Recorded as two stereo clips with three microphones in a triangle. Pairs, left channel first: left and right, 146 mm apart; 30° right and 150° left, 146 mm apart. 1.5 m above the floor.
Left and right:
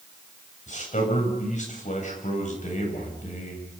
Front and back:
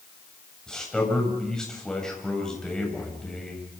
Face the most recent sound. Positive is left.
turn(degrees=55)